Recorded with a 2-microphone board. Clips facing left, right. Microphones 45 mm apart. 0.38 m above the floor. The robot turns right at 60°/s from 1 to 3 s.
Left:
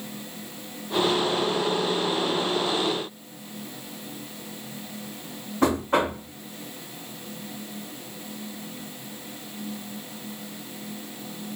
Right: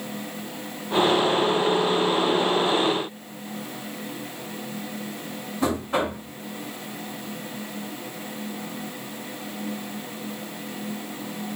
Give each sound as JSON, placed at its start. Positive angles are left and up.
{"t": 5.6, "sound": "knocking", "side_deg": 50, "distance_m": 3.0}